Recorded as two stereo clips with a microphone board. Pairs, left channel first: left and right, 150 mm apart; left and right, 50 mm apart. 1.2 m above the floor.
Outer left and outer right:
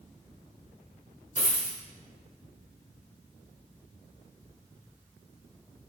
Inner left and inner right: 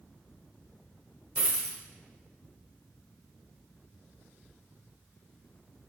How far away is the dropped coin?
About 1.2 m.